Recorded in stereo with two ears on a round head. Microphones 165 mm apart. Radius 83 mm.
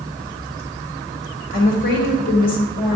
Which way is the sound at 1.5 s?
50° left (ahead or behind).